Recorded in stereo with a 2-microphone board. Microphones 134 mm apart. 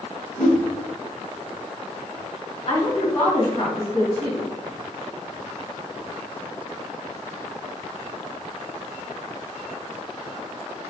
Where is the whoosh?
80° left, 1.8 m.